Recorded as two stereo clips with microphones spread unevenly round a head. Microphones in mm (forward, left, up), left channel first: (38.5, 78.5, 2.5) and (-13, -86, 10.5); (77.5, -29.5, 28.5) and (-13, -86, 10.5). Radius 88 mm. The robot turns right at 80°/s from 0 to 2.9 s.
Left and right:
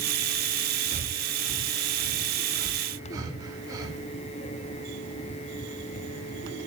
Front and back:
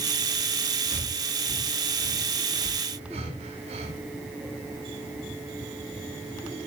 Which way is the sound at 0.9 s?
20° left.